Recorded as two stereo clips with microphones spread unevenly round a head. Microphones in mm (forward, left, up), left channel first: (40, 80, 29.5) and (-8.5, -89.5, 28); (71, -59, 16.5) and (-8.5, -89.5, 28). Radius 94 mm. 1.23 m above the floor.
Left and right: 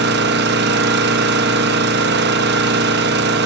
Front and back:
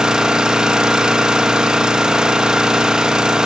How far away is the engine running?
About 0.8 m.